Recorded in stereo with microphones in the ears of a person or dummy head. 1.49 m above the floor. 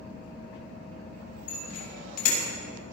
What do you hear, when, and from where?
1.5 s a bicycle bell: 55° left (ahead or behind), 6.5 m